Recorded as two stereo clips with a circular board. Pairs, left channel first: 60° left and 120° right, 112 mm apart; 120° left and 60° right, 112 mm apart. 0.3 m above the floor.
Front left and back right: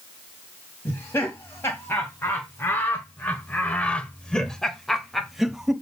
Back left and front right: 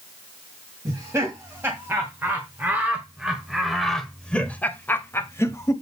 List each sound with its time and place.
0.8 s laughter: straight ahead, 2 m; by 5.7 s 155° left, 1.5 m